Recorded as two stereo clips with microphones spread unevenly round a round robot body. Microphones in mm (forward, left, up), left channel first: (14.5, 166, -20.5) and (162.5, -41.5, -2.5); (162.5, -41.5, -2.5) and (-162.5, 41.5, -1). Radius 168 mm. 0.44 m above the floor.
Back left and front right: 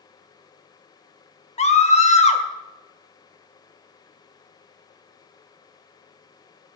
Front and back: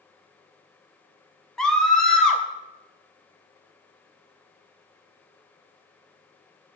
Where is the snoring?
I don't hear snoring.